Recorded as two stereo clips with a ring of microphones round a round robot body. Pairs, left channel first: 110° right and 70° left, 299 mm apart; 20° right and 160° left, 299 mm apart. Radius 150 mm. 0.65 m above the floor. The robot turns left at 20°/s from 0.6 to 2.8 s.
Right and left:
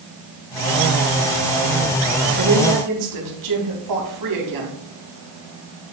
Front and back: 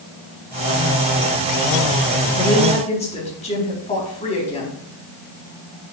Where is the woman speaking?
55° left, 4 m; by 4.8 s 50° left, 4 m.